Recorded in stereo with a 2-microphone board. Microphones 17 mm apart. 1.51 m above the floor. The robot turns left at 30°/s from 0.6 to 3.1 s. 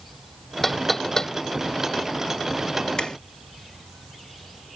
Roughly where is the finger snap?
Left.